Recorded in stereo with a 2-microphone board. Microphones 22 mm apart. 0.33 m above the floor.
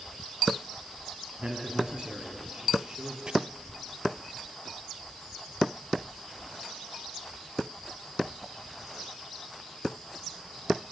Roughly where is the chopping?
Right.